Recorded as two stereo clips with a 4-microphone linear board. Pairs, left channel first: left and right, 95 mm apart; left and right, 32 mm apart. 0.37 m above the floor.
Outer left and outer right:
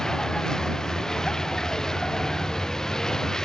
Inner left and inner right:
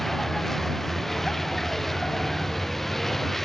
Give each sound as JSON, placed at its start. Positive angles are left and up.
{"t": 0.0, "sound": "a vehicle", "side_deg": 5}